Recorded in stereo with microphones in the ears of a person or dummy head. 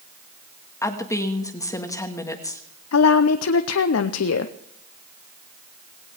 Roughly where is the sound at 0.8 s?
Centre.